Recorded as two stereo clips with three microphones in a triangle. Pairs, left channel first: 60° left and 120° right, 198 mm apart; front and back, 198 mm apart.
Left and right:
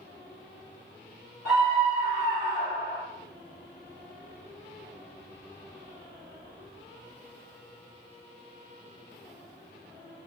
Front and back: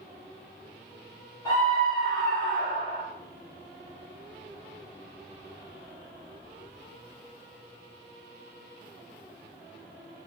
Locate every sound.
1.4 s a scream: 30° right, 1.2 m